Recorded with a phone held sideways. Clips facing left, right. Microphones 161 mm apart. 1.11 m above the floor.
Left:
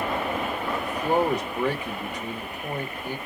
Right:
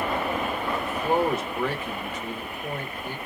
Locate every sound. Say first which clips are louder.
0.8 s a man speaking: left 1 dB; 15° left (ahead or behind), 1.3 m